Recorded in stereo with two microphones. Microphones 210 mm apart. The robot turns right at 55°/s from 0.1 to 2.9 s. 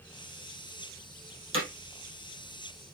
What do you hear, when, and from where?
1.5 s hammering: 80° right, 2.5 m